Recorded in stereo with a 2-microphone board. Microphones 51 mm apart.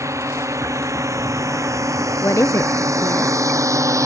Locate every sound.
0.0 s a drone: 70° right (ahead or behind); by 4.1 s 80° right
2.2 s a woman speaking: 70° left (ahead or behind)